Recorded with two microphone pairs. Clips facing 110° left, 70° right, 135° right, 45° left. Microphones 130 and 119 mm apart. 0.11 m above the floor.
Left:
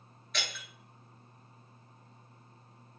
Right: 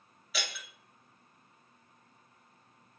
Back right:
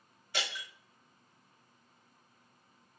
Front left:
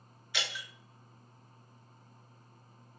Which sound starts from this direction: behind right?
Breaking glass, at 0.3 s.